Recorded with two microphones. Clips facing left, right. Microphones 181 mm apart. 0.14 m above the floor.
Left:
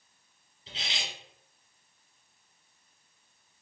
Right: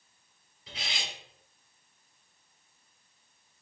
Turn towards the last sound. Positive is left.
turn(degrees=25)  # may be behind; listen again after turning